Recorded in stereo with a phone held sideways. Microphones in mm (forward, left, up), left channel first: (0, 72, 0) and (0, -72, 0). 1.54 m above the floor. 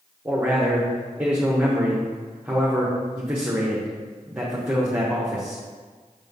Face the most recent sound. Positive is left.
turn(degrees=-10)  # may be behind; listen again after turning